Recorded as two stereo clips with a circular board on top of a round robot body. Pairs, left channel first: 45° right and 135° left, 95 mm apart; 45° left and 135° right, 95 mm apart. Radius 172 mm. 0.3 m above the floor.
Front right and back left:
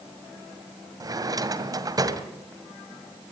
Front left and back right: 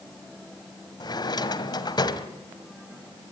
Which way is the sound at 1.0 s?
85° left.